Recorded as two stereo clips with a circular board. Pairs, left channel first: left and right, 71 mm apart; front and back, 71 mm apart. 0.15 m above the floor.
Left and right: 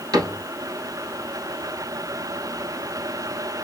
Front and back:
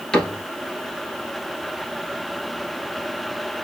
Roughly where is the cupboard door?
Right.